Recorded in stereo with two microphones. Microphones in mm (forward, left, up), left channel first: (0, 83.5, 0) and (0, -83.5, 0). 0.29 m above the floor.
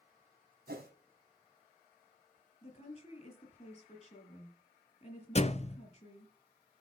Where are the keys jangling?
No keys jangling in this recording.